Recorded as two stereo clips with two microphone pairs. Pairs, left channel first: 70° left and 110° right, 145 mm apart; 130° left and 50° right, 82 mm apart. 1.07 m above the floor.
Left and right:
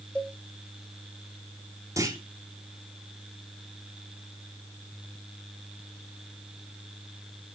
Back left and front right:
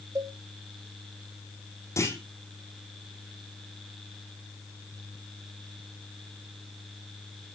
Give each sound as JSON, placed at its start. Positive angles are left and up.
{"t": 0.1, "sound": "a cowbell", "azimuth_deg": -10, "distance_m": 1.4}
{"t": 2.0, "sound": "a clunk", "azimuth_deg": 180, "distance_m": 3.0}